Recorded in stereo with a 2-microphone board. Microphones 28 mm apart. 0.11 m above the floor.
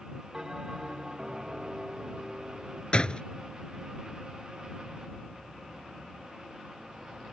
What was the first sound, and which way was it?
A bell, 20° right (ahead or behind).